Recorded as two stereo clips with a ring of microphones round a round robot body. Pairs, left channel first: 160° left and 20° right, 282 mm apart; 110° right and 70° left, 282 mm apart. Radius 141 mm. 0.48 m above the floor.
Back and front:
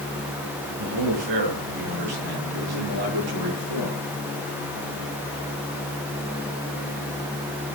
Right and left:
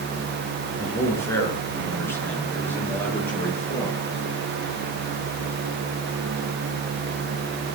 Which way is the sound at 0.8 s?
30° right.